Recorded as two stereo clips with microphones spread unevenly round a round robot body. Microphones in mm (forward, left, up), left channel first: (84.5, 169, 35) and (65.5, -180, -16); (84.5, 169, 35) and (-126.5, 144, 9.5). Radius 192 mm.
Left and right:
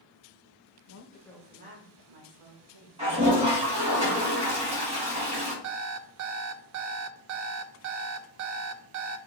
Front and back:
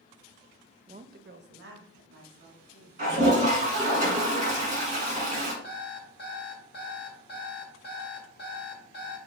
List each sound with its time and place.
0.9 s a woman speaking: 130° left, 0.6 m; by 4.0 s 120° right, 2.5 m
3.0 s a toilet flushing: 150° right, 1.4 m
5.6 s an alarm clock: 55° right, 0.5 m